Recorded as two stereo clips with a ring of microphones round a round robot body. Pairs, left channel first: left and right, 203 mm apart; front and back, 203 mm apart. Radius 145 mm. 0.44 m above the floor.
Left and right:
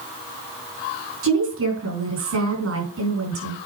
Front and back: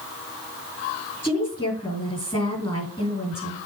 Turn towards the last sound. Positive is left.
turn(degrees=-80)